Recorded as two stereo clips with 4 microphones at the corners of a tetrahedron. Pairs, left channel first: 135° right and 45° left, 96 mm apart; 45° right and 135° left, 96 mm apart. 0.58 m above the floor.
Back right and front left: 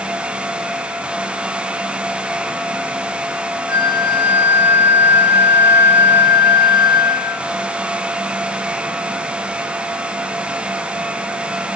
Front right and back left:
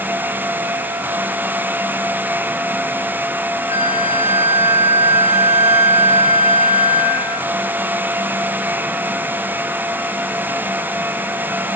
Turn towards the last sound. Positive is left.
turn(degrees=60)